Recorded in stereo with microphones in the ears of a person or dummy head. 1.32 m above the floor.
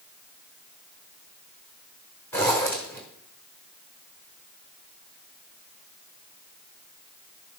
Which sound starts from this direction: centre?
A zipper, at 2.3 s.